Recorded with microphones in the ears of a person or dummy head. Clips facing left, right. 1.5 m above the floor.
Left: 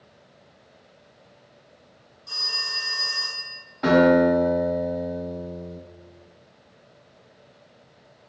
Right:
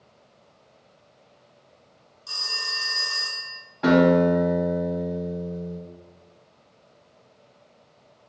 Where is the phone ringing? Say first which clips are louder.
Even; 45° right (ahead or behind), 0.9 m.